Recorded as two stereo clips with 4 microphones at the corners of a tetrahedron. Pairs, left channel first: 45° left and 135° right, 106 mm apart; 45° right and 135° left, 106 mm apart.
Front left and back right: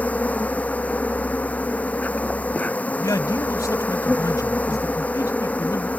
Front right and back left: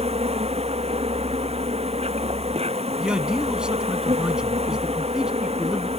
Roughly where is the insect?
Behind left.